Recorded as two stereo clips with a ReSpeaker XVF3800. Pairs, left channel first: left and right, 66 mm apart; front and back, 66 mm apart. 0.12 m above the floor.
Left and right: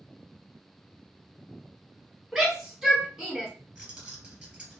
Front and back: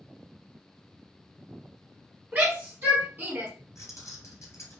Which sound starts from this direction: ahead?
Keys jangling, at 3.8 s.